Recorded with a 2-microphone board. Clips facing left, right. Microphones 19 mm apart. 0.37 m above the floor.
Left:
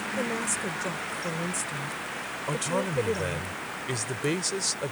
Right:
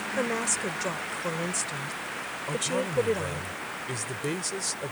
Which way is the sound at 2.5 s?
25° left (ahead or behind).